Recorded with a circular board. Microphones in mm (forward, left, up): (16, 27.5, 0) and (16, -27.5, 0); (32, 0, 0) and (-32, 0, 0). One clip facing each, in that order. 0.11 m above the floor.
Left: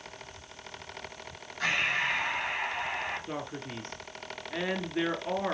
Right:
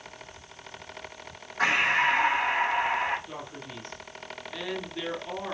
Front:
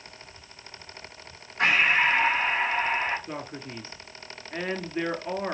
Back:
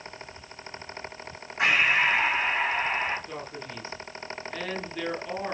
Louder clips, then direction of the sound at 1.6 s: Right 5 dB, front 1 dB; 95° right.